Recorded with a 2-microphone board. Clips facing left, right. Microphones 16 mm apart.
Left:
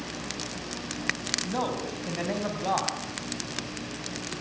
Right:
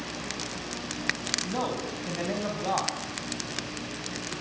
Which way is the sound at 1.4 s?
10° left (ahead or behind).